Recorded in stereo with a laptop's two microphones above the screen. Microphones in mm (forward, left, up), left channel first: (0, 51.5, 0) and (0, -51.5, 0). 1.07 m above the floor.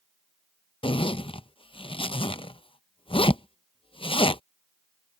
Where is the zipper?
60° left (ahead or behind).